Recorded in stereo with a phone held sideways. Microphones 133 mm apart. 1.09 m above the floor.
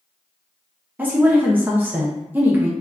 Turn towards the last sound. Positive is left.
turn(degrees=-15)  # may be behind; listen again after turning